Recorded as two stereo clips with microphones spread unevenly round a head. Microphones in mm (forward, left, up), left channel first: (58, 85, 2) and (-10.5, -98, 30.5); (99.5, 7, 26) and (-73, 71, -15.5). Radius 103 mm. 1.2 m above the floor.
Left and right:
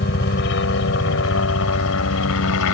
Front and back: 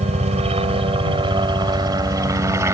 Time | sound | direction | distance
0.0 | a helicopter | 105° left | ?